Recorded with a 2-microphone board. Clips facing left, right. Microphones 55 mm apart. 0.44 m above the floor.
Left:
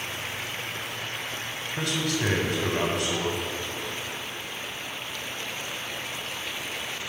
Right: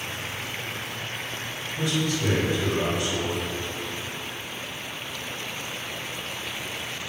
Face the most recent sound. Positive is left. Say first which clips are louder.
# right 2 dB
turn(degrees=70)  # may be behind; listen again after turning